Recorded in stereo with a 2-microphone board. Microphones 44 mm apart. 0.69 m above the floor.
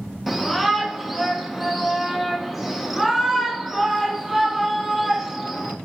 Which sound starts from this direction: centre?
A shout, at 0.3 s.